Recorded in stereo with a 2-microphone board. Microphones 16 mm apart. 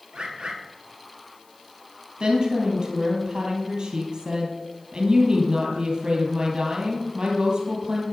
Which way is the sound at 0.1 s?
65° right (ahead or behind).